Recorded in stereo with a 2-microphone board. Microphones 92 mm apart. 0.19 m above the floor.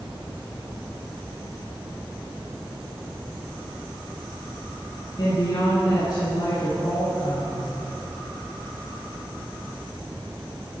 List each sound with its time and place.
5.2 s a woman speaking: 55° left (ahead or behind), 1.7 m